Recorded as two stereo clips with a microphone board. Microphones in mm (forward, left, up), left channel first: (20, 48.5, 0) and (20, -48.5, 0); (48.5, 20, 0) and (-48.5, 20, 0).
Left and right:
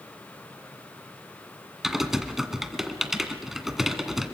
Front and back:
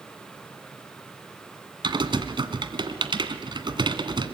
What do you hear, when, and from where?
1.8 s typing on a keyboard: 175° right, 1.9 m